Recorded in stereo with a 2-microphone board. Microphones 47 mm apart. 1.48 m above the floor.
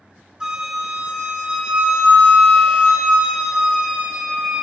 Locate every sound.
0.4 s a flute: 10° right (ahead or behind), 1.5 m